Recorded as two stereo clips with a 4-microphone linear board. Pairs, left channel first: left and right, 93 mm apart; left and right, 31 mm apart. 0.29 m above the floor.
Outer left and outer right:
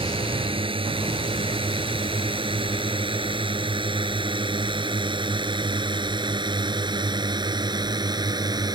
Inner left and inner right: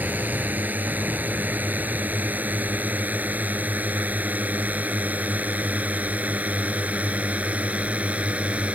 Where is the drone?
75° right (ahead or behind); by 8.8 s 45° right (ahead or behind).